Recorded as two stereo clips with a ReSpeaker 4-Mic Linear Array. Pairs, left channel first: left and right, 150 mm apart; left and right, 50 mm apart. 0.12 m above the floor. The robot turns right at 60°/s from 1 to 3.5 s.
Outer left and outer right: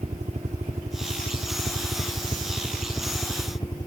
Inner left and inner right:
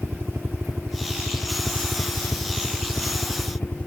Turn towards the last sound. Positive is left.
turn(degrees=30)